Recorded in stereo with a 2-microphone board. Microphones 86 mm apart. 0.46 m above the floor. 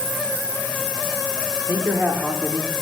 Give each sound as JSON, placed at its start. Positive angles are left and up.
{"t": 1.7, "sound": "a man speaking", "side_deg": -25, "distance_m": 0.8}